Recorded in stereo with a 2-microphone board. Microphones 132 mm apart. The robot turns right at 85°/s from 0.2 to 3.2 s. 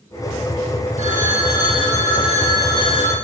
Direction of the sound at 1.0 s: 115° right.